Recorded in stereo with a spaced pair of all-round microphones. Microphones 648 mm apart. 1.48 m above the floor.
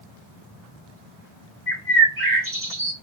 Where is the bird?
20° right (ahead or behind), 1.5 m.